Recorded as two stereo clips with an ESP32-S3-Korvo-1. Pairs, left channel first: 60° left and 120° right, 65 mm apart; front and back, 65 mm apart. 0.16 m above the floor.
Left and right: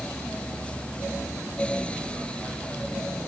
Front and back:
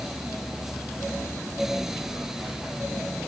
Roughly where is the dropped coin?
I don't hear a dropped coin.